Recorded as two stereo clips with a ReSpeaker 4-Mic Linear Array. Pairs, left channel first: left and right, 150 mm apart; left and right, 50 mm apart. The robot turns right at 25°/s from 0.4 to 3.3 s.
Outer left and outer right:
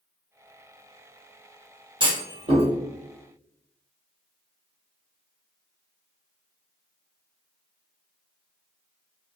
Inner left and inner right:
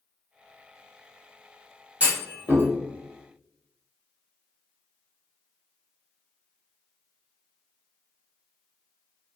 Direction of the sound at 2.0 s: 35° right (ahead or behind).